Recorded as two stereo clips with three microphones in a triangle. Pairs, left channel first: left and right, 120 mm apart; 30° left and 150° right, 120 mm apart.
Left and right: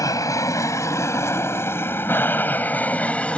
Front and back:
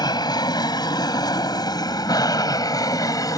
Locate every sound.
0.0 s an aircraft: 50° left; by 3.4 s 20° left